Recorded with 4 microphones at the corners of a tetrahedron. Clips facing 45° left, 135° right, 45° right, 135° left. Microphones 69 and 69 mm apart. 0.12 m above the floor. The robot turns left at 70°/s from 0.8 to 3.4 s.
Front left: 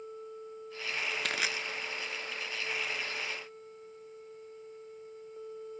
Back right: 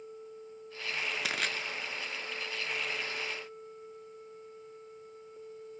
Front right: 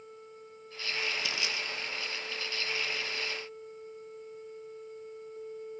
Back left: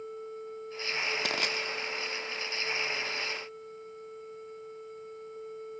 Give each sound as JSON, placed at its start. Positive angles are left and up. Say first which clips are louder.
{"t": 1.2, "sound": "crushing", "louder": "even, back left 3 dB", "azimuth_deg": 140, "distance_m": 1.0}